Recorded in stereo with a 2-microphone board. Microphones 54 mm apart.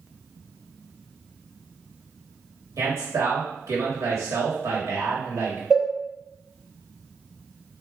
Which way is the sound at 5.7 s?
15° right (ahead or behind).